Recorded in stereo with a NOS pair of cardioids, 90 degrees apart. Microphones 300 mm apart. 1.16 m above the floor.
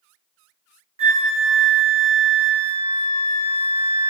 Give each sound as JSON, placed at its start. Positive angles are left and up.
{"t": 1.0, "sound": "a flute", "azimuth_deg": -20, "distance_m": 0.7}